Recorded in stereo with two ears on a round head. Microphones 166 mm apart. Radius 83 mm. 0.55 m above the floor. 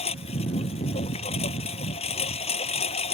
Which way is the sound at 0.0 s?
35° left (ahead or behind).